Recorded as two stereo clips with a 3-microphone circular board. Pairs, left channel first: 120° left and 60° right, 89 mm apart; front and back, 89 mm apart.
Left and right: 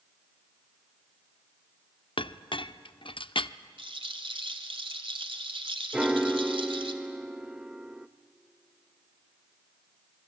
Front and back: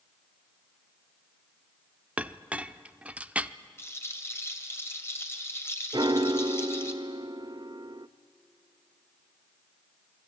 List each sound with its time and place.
2.2 s a clink: 105° left, 0.6 m
3.8 s a rattle: 60° right, 2 m
5.9 s a piano: 140° right, 0.6 m